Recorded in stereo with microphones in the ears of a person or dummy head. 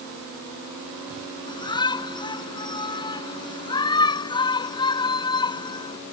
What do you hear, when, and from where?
1.5 s a shout: 30° left (ahead or behind)